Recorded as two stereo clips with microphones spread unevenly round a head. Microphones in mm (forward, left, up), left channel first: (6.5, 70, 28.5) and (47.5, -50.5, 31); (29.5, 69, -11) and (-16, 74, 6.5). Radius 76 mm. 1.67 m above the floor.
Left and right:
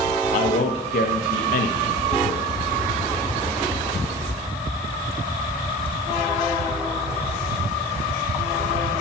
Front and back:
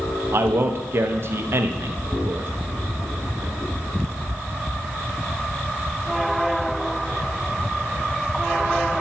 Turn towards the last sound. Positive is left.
turn(degrees=140)